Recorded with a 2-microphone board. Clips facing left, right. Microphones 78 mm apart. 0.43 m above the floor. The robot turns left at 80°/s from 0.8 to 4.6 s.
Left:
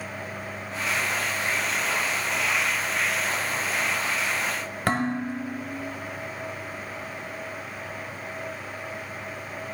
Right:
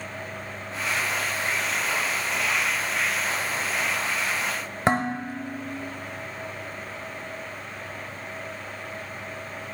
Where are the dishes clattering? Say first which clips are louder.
Right 2 dB; 25° right (ahead or behind), 1.3 m.